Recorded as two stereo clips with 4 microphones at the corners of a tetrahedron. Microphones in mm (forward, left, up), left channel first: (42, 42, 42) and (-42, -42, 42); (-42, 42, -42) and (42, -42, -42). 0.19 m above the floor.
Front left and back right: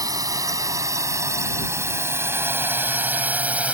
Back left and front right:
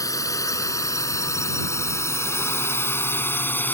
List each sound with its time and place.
0.0 s a drone: straight behind; by 3.7 s 170° left